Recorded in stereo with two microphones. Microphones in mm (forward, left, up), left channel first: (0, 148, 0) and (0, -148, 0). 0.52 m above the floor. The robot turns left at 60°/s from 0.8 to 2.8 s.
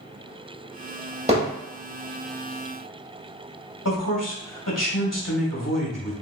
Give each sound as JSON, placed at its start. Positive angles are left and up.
{"t": 1.3, "sound": "hammering", "side_deg": -20, "distance_m": 1.7}
{"t": 3.9, "sound": "a man speaking", "side_deg": 75, "distance_m": 2.0}